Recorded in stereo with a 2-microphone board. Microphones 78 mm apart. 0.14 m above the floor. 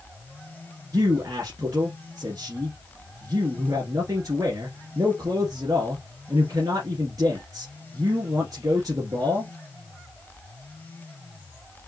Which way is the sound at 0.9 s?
55° right (ahead or behind).